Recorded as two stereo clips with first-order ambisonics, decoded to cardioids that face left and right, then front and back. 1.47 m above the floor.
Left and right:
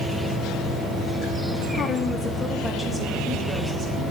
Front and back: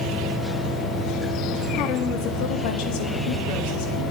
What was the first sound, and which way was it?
A woman speaking, 35° left.